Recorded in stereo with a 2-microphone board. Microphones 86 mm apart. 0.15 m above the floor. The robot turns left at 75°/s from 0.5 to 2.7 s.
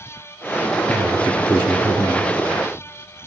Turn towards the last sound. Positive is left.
turn(degrees=-35)